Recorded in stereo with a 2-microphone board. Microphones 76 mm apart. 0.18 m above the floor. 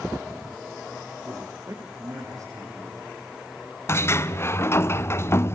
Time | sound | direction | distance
1.2 | a man speaking | 45° right (ahead or behind) | 8.5 m
3.9 | a sliding door | 35° left (ahead or behind) | 0.9 m